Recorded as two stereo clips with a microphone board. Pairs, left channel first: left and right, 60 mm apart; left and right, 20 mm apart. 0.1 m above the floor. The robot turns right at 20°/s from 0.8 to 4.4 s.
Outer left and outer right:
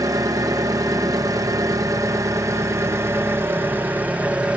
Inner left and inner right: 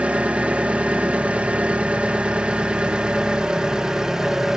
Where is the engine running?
95° right, 1.4 m; by 4.6 s 20° right, 1.4 m.